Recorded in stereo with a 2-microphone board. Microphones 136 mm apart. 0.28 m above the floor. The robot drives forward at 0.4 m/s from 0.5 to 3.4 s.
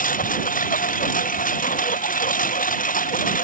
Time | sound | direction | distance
0.0 | a lawn mower | 90° left | ?